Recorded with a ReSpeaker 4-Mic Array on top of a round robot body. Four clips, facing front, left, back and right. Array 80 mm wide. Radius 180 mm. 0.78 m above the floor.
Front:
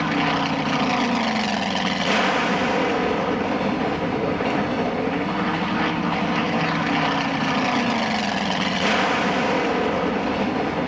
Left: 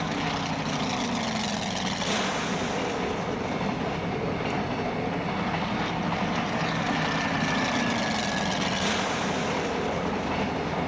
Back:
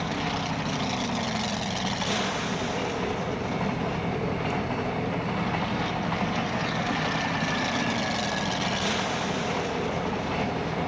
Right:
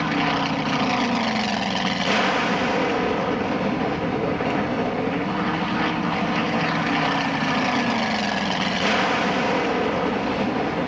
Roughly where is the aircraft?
Ahead right.